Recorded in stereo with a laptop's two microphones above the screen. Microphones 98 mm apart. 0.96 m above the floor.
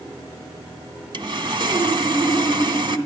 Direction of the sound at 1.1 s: 55° right (ahead or behind).